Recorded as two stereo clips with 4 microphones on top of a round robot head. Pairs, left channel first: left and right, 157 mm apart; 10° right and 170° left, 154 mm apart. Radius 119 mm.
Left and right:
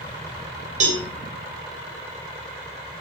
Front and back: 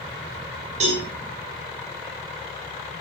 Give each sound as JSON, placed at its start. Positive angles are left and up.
{"t": 0.8, "sound": "a cowbell", "azimuth_deg": -130, "distance_m": 4.0}